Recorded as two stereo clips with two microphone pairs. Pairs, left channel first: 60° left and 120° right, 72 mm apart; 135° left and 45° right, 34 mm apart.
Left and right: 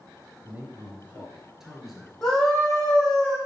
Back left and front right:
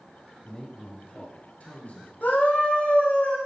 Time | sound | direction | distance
0.5 | a man speaking | 170° right | 2.5 m
2.2 | a scream | 145° left | 4.5 m